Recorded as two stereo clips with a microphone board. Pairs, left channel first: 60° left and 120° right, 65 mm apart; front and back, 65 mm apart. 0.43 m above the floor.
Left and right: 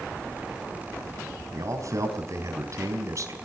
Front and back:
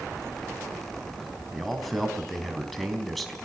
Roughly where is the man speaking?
Right.